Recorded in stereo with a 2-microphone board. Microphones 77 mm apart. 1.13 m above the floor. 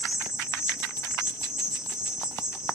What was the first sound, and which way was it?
An insect, 10° right (ahead or behind).